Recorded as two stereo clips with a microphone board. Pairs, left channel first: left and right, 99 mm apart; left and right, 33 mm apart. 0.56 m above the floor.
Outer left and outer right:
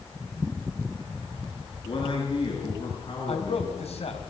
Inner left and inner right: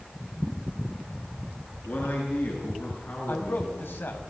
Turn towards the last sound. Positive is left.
turn(degrees=75)  # may be behind; listen again after turning